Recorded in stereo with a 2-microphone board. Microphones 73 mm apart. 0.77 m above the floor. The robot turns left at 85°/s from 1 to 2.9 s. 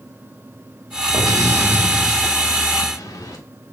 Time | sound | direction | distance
1.1 | an explosion | 100° right | 1.8 m